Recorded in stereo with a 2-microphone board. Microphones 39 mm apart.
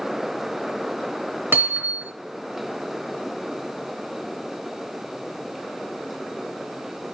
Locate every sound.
1.5 s hammering: 75° right (ahead or behind), 3.5 m